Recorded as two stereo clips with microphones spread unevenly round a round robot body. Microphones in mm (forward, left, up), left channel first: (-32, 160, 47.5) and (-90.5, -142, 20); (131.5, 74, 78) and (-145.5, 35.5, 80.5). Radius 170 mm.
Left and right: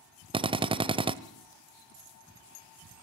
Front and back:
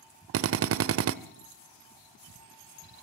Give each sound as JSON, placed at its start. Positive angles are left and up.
{"t": 0.3, "sound": "a drill", "azimuth_deg": -165, "distance_m": 0.9}